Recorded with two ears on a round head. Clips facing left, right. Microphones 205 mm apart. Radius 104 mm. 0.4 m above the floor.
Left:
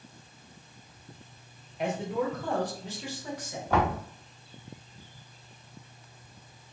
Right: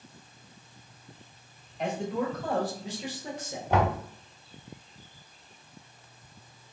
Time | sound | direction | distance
1.8 | a man speaking | 5° left (ahead or behind) | 1.7 m
3.7 | knocking | 15° right (ahead or behind) | 1.4 m